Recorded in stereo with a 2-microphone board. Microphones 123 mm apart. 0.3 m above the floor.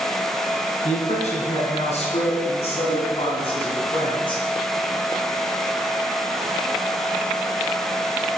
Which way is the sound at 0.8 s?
70° left (ahead or behind).